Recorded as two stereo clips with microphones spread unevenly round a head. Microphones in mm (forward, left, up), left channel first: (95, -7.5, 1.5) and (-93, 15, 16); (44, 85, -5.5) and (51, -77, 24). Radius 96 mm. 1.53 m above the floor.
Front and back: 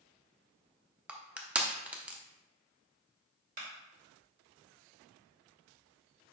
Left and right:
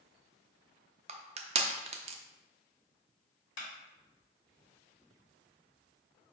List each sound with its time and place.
1.1 s crushing: 110° right, 0.6 m
3.6 s a clap: 125° left, 3 m